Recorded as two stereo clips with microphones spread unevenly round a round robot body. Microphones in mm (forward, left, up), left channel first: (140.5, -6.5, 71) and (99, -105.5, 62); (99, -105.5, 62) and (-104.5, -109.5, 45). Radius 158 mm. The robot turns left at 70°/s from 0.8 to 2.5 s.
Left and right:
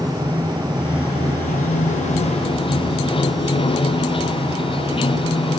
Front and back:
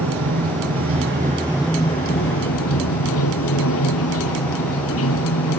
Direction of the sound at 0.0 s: 150° left.